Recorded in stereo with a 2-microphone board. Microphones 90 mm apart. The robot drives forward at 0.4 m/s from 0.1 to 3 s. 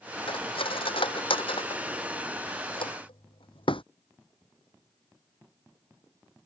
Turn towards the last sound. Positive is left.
turn(degrees=75)  # may be behind; listen again after turning